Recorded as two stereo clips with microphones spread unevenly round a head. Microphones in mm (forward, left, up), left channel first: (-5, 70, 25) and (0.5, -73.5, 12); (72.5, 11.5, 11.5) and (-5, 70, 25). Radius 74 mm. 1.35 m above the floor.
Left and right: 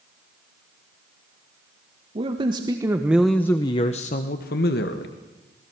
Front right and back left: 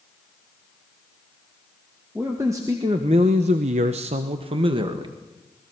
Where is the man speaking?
140° right, 2.0 m; by 5.1 s 100° left, 2 m.